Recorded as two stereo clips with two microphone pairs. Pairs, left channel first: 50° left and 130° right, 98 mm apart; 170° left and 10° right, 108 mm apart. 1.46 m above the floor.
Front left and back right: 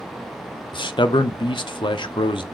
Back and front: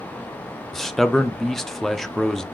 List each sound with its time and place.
0.7 s a man speaking: 80° left, 0.6 m